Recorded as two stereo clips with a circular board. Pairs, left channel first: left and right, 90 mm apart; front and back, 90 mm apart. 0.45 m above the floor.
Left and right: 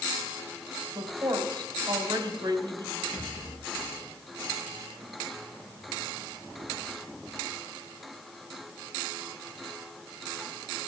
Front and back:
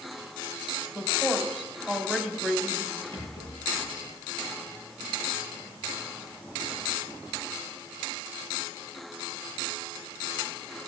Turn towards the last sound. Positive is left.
turn(degrees=165)